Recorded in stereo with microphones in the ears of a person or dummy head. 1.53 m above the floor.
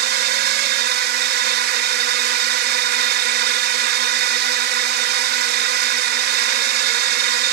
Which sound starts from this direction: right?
A drone, at 0.0 s.